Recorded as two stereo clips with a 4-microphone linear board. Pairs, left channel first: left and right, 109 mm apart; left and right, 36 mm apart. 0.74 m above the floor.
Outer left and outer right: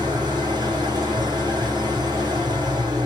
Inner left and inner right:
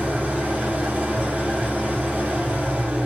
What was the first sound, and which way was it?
An engine running, 40° right (ahead or behind).